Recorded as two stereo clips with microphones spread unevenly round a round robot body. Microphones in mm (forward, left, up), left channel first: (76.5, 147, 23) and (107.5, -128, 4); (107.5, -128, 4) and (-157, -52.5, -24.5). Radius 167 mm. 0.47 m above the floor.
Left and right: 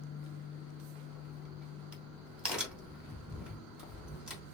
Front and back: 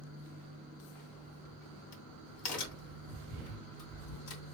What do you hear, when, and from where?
1.1 s a crack: 5° left, 2.5 m